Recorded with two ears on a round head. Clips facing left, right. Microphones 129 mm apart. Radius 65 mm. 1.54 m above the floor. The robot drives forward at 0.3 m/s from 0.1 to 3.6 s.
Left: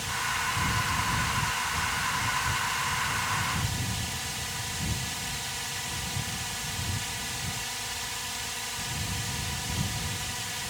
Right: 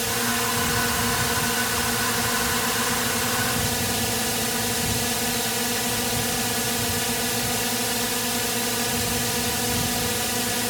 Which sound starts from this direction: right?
A drone, at 0.0 s.